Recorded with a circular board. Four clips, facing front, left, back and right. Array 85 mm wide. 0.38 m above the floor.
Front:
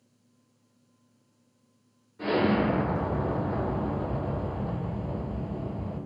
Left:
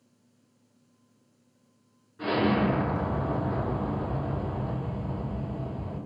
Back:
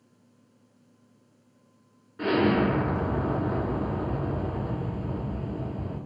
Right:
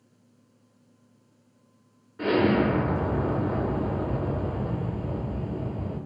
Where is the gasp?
I don't hear a gasp.